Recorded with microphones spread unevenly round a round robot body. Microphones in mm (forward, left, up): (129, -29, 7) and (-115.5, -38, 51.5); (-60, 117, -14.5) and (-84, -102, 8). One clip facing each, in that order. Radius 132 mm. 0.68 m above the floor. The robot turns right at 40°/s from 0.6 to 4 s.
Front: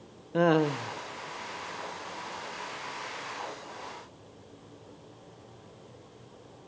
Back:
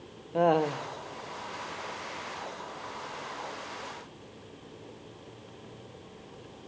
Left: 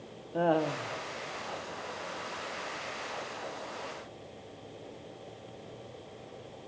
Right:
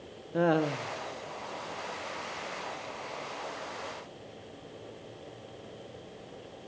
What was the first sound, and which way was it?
Laughter, 30° right.